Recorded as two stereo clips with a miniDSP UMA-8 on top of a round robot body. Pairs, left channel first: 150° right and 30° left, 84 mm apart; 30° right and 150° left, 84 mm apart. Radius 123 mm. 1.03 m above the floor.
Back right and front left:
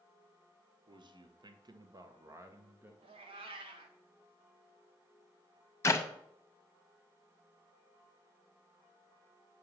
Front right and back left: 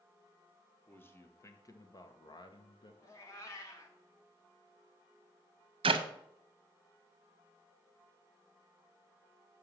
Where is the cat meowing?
25° left, 0.9 m.